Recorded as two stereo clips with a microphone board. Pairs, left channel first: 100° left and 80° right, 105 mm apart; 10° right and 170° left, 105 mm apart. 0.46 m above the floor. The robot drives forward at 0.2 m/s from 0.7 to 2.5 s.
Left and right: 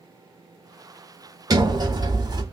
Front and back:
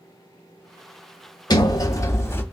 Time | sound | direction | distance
1.5 | a sliding door | 50° right | 0.5 m